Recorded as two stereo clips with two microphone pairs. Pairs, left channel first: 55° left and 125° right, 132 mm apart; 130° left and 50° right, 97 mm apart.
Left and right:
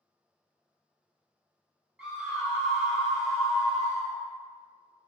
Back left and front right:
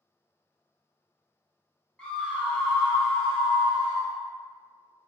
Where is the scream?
Straight behind, 0.9 m.